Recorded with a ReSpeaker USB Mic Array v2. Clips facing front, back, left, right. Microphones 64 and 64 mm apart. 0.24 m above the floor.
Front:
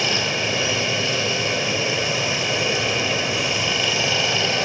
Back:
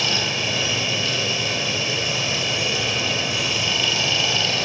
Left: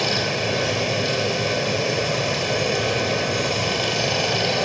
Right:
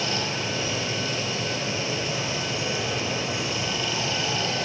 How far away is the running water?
About 3.5 m.